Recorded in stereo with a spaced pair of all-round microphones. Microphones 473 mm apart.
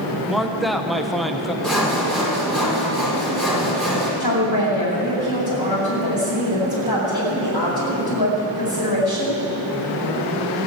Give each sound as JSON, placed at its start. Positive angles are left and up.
{"t": 0.3, "sound": "a man speaking", "side_deg": 0, "distance_m": 0.9}
{"t": 1.6, "sound": "sawing", "side_deg": 0, "distance_m": 4.0}
{"t": 4.2, "sound": "a woman speaking", "side_deg": 50, "distance_m": 7.5}